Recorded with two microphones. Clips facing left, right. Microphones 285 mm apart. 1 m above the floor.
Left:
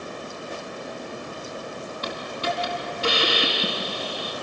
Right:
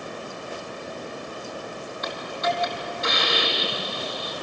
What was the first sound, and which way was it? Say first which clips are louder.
A hiss: right 2 dB; 35° left (ahead or behind).